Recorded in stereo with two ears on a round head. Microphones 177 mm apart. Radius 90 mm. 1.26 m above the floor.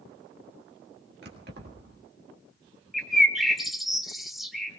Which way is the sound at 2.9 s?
Centre (ahead or behind).